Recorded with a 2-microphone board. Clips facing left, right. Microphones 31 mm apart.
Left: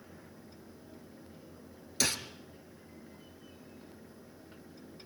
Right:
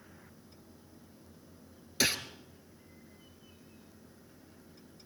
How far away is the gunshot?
About 2 m.